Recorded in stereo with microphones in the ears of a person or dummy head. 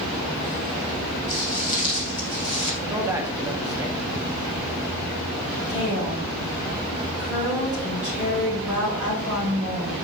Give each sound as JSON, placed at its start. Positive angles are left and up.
{"t": 1.3, "sound": "footsteps", "side_deg": 30, "distance_m": 1.7}
{"t": 2.8, "sound": "a man speaking", "side_deg": -10, "distance_m": 1.6}
{"t": 5.7, "sound": "a woman speaking", "side_deg": 0, "distance_m": 5.0}